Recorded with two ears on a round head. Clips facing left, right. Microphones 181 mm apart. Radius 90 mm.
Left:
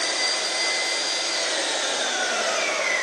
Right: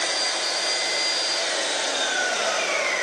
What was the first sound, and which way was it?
An engine running, 45° left (ahead or behind).